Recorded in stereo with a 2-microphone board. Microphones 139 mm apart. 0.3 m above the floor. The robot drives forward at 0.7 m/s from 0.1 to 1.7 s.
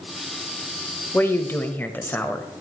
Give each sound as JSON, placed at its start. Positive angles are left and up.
{"t": 1.1, "sound": "a woman speaking", "side_deg": 15, "distance_m": 0.8}